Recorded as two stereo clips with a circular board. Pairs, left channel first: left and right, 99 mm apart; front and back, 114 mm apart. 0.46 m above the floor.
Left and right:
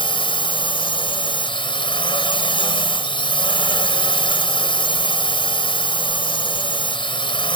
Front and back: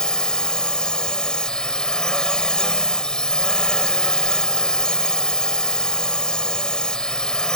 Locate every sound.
0.0 s a drone: 80° left